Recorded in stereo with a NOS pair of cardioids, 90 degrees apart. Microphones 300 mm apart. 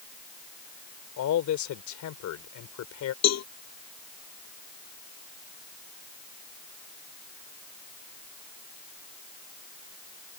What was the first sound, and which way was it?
A man speaking, 70° left.